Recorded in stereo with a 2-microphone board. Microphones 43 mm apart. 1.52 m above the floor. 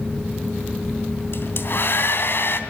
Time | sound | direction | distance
1.3 | a hair dryer | 55° left (ahead or behind) | 2.5 m